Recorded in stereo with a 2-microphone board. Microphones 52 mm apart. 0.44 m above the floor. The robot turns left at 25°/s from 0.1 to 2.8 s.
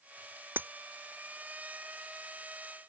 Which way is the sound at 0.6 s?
40° right (ahead or behind).